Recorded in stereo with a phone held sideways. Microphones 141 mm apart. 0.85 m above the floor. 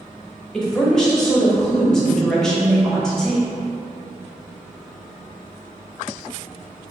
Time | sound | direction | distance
0.5 | a woman speaking | 5° left (ahead or behind) | 0.8 m